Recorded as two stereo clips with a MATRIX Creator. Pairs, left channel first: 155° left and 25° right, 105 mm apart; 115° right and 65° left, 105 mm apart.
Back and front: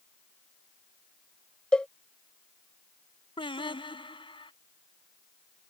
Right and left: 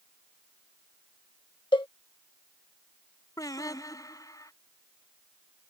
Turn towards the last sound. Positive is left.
turn(degrees=-170)